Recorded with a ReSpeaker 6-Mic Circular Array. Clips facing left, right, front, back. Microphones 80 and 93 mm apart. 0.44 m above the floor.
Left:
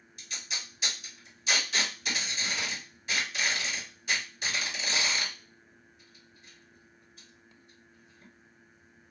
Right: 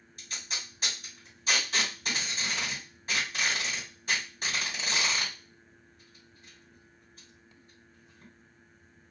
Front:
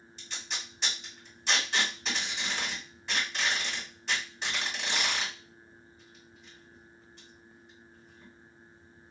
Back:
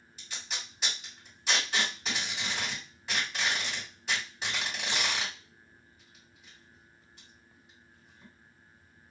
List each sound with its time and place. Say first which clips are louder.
0.2 s tape being pulled: even, front 1 dB; 100° right, 1.8 m